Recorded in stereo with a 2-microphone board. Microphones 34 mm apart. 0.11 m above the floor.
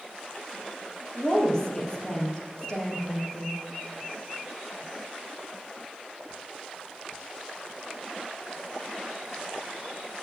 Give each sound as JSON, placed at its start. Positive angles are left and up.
{"t": 1.1, "sound": "a woman speaking", "side_deg": 20, "distance_m": 3.5}